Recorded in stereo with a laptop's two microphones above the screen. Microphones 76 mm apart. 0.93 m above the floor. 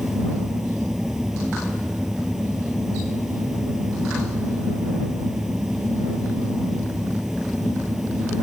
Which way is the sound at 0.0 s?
5° right (ahead or behind).